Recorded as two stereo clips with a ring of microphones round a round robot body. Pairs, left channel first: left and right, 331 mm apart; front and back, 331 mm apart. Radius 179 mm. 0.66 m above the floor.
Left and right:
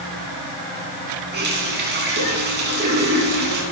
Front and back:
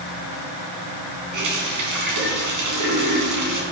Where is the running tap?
150° right, 4.5 m.